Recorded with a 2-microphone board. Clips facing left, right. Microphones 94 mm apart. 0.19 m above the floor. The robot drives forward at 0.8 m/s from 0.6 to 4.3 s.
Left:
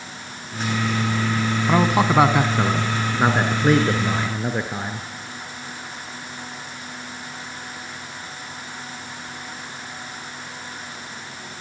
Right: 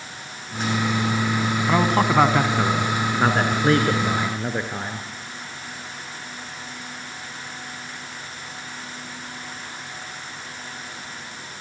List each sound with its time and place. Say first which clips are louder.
1.7 s a man speaking: left 1 dB; 5° left (ahead or behind), 1.3 m; by 5.0 s centre (ahead or behind), 3 m